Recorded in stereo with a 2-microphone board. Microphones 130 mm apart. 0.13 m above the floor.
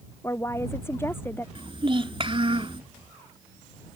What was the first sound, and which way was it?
A woman speaking, 20° left (ahead or behind).